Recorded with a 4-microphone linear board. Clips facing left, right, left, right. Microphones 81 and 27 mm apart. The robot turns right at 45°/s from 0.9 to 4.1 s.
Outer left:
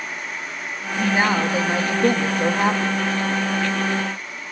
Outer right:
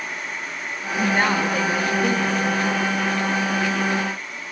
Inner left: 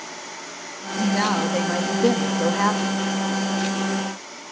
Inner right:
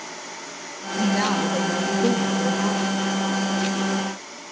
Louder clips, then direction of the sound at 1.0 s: Outer left 1 dB, even; straight ahead.